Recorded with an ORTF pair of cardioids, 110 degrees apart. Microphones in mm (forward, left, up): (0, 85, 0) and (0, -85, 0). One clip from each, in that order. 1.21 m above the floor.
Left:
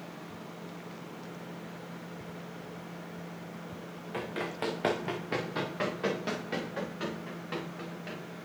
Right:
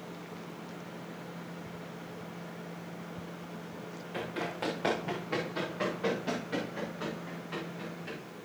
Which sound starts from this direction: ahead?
Running footsteps, at 4.1 s.